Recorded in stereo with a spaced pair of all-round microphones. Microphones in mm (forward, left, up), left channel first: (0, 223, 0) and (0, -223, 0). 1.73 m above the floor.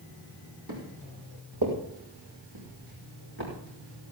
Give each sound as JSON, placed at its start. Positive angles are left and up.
{"t": 0.7, "sound": "footsteps", "side_deg": -50, "distance_m": 5.5}